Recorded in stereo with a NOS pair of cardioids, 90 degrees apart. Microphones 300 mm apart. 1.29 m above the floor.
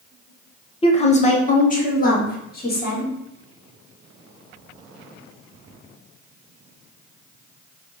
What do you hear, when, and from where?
0.8 s a woman speaking: 20° left, 1.0 m; by 3.1 s 35° left, 2.5 m